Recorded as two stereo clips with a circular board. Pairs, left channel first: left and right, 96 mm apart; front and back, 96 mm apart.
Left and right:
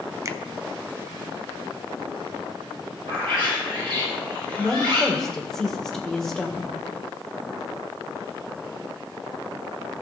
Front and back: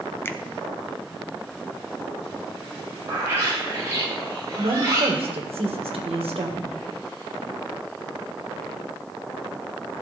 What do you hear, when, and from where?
0.2 s a finger snap: 50° right, 0.6 m
3.1 s a bird: 120° right, 6 m
4.6 s a woman speaking: 175° left, 1.9 m